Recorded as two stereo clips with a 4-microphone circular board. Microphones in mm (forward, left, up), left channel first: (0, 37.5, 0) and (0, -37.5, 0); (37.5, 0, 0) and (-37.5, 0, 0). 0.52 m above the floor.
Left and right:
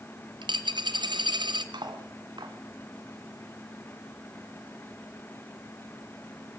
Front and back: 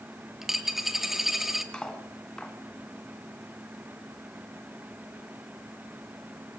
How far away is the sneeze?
No sneeze in this recording.